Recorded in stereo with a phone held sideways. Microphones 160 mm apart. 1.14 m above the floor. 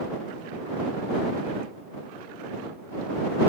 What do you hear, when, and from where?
Only background noise.